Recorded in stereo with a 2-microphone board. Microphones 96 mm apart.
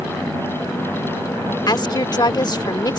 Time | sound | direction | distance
1.7 | a woman speaking | 50° left (ahead or behind) | ?